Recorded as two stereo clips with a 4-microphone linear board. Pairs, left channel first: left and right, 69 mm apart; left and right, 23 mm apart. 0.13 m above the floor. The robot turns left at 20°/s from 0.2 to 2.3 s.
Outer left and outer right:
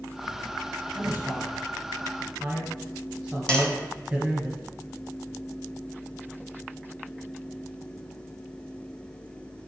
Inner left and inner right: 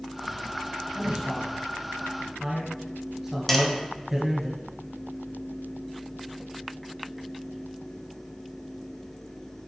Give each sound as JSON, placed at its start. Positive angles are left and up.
{"t": 0.9, "sound": "a man speaking", "side_deg": -35, "distance_m": 2.0}
{"t": 3.5, "sound": "tapping", "side_deg": 15, "distance_m": 1.1}